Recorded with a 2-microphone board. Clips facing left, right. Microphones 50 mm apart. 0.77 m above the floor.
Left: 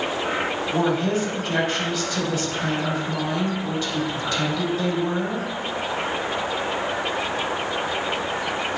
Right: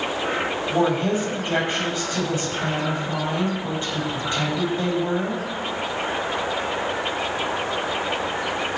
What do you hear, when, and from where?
0.7 s a woman speaking: 25° right (ahead or behind), 4.5 m